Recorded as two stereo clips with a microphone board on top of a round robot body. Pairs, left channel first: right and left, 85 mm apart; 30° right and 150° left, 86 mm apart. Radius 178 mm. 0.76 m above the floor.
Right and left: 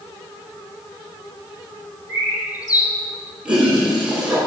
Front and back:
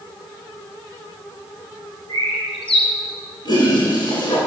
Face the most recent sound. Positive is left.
turn(degrees=10)